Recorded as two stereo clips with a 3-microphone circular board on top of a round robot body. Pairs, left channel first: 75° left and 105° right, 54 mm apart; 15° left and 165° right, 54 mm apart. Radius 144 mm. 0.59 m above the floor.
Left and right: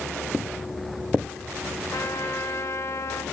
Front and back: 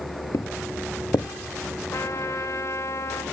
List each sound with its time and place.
0.3 s footsteps: 20° right, 0.6 m
1.9 s a trumpet: 50° left, 3 m